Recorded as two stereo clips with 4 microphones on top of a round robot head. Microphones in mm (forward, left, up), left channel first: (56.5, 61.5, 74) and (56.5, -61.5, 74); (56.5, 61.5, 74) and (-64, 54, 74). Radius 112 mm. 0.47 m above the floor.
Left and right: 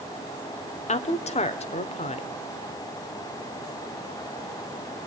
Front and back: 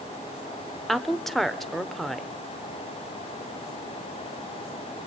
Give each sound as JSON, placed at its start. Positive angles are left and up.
{"t": 0.9, "sound": "a woman speaking", "azimuth_deg": 90, "distance_m": 1.5}